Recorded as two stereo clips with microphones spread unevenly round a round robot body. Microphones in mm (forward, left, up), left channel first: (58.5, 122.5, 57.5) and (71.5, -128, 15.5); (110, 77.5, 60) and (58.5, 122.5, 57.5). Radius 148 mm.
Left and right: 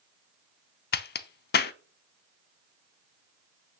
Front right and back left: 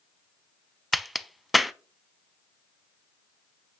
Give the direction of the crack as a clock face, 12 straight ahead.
10 o'clock.